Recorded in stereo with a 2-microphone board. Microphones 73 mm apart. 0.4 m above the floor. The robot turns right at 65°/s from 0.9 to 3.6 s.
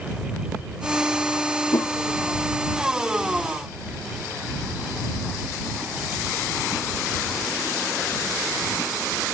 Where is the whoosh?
45° left (ahead or behind).